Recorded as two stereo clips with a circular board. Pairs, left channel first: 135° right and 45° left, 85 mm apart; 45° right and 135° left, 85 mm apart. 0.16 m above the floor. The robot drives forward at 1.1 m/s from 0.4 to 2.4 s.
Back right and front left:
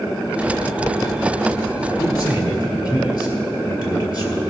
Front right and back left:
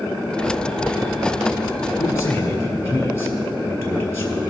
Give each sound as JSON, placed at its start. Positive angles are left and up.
{"t": 2.0, "sound": "a man speaking", "azimuth_deg": -90, "distance_m": 3.0}